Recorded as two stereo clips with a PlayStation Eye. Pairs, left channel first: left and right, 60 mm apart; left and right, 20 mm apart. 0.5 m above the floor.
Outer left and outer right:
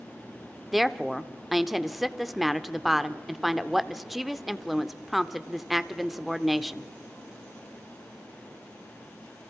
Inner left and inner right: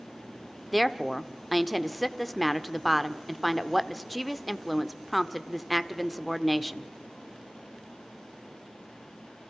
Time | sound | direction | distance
0.7 | a woman speaking | centre (ahead or behind) | 1.0 m